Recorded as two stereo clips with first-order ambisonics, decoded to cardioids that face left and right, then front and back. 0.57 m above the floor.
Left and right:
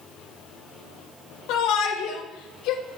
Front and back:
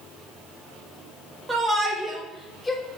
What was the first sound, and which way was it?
A shout, 100° left.